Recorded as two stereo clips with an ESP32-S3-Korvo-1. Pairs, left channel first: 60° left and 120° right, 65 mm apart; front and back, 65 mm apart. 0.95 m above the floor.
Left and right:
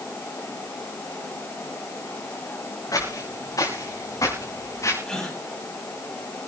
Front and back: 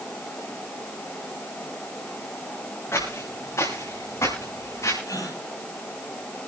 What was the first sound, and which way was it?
Footsteps, 45° left.